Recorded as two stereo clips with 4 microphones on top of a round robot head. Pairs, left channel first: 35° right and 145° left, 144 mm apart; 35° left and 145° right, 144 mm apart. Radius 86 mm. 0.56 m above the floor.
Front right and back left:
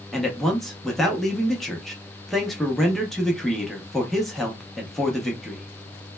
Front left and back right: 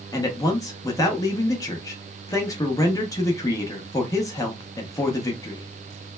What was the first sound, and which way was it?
A man speaking, 55° left.